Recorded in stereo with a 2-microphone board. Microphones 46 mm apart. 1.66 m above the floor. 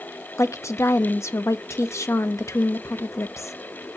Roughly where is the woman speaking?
Left.